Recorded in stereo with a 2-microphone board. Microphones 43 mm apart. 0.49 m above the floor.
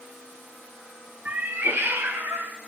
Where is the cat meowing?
35° right (ahead or behind), 0.6 m; by 2.5 s 65° right (ahead or behind), 1.3 m.